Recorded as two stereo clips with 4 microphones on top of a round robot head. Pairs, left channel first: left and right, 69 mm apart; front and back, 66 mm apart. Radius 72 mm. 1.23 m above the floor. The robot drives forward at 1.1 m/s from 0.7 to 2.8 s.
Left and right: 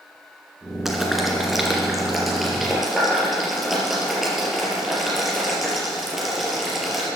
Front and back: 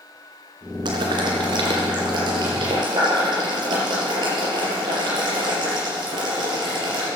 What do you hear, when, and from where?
0.8 s boiling: 175° right, 2.5 m; by 7.1 s straight behind, 4.5 m